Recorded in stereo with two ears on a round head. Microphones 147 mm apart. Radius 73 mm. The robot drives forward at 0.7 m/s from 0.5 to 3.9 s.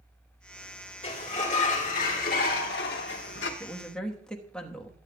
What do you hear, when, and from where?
1.0 s a sliding door: 40° left (ahead or behind), 2 m; by 3.5 s 75° left (ahead or behind), 1.4 m
3.6 s a woman speaking: 5° left (ahead or behind), 1.0 m